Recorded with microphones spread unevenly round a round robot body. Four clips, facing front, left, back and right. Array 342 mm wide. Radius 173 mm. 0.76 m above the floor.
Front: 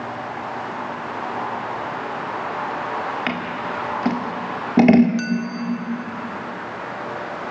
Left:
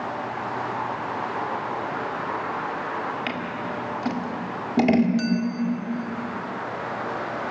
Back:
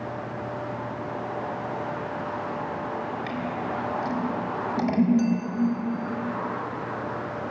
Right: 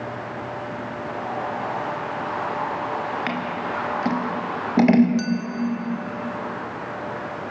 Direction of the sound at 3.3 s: 5° right.